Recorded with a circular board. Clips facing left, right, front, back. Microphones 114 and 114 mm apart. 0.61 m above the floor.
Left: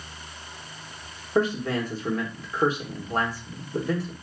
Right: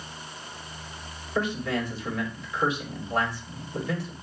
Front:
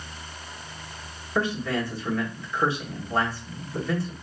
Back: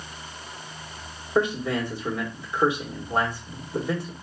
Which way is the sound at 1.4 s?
115° left.